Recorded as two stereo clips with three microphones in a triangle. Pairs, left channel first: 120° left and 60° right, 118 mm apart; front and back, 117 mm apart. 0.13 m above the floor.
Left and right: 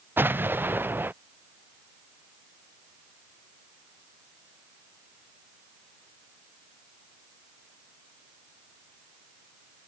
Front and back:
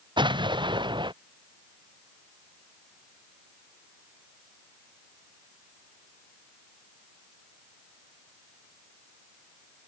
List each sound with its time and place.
0.2 s an explosion: 135° right